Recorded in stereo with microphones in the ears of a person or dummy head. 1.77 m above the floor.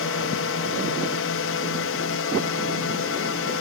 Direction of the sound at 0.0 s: 70° left (ahead or behind).